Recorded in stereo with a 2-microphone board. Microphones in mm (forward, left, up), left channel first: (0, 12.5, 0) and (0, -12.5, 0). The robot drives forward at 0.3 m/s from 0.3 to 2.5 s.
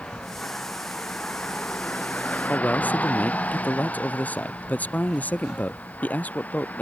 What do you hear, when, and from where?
0.0 s a vehicle: 50° left (ahead or behind); by 6.8 s 80° left
2.5 s a man speaking: 75° left (ahead or behind)